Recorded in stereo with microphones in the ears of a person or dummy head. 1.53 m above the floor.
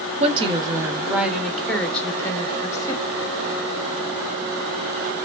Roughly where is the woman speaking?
Right.